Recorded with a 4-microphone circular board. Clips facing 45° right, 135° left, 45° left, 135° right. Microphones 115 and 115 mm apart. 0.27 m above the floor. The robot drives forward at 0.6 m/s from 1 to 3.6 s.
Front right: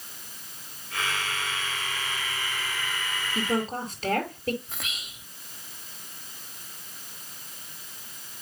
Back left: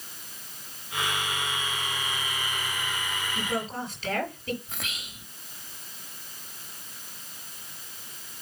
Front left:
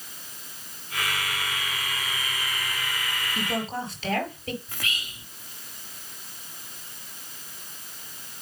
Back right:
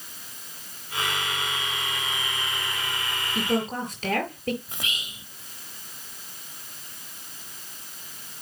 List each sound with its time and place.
3.4 s a woman speaking: 90° right, 5.5 m
4.7 s whispering: 135° right, 0.9 m